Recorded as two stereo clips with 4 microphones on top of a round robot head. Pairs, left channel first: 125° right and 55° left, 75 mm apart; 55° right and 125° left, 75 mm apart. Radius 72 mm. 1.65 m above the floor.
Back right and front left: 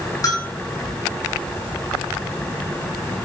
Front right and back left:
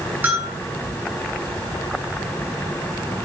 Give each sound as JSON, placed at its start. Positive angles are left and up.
{"t": 0.2, "sound": "a bell", "azimuth_deg": -170, "distance_m": 7.0}